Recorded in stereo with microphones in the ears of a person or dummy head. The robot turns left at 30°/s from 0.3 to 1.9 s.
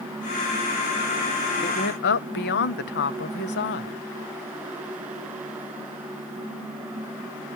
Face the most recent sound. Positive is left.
turn(degrees=55)  # may be behind; listen again after turning